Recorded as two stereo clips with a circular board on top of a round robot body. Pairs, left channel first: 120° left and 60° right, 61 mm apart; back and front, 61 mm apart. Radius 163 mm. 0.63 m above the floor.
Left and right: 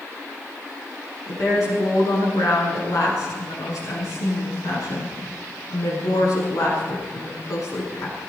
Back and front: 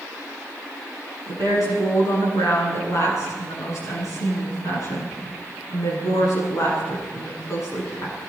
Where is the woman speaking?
145° left, 9 m.